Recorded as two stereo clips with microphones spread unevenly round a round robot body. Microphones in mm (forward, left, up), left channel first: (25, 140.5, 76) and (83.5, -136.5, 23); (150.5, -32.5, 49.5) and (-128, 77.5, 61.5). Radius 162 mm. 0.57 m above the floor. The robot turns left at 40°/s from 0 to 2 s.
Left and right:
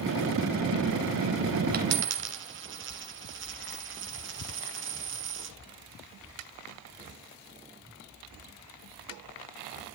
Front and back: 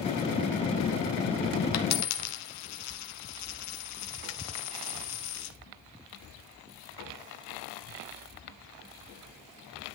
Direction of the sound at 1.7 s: 15° right.